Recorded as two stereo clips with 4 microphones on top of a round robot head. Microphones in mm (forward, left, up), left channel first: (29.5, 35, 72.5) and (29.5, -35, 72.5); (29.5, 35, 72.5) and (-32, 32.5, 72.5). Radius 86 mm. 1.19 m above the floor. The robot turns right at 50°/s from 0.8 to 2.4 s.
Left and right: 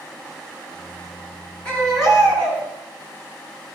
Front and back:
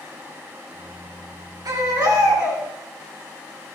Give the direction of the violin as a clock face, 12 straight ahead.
I don't hear a violin.